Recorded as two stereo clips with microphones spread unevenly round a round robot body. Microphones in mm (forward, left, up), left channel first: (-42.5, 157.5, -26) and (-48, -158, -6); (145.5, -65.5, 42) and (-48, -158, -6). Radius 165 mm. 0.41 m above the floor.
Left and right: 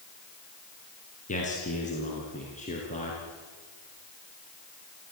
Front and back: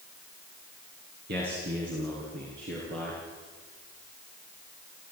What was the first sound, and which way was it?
A man speaking, 155° left.